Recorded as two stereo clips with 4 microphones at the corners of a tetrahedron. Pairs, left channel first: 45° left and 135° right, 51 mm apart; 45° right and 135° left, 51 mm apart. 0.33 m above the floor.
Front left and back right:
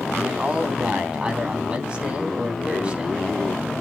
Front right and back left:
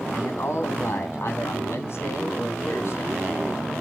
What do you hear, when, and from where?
0.1 s a man speaking: 70° right, 3 m